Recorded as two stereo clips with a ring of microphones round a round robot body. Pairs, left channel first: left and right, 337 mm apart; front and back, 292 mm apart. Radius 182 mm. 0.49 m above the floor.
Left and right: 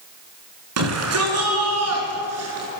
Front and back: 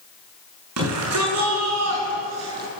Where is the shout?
135° right, 6 m; by 2.7 s 140° right, 7.5 m.